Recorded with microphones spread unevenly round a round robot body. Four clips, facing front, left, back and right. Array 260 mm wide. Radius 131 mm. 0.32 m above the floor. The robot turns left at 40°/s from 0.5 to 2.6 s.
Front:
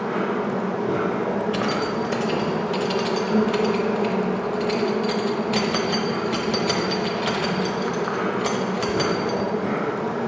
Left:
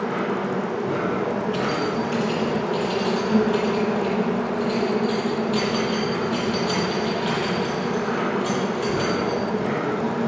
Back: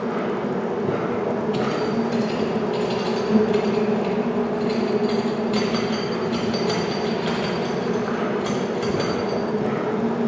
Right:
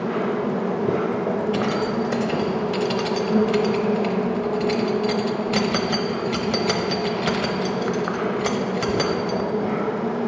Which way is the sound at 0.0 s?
140° right.